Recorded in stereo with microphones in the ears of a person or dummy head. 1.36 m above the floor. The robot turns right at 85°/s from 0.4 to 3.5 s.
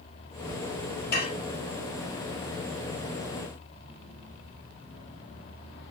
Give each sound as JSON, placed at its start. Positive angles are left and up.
{"t": 1.1, "sound": "dishes clattering", "side_deg": 55, "distance_m": 2.0}